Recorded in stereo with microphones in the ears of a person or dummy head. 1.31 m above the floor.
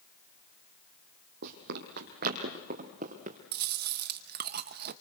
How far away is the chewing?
About 0.7 m.